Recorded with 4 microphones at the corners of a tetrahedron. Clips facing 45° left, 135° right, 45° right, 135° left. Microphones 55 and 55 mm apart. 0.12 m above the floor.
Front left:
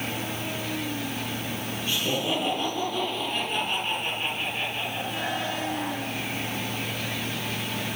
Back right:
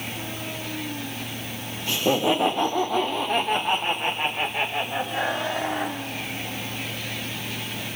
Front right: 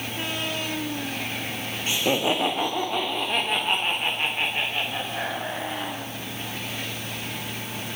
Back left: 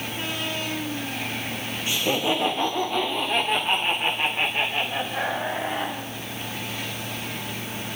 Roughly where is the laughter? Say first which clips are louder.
Back right 6 dB, front right 1 dB; right.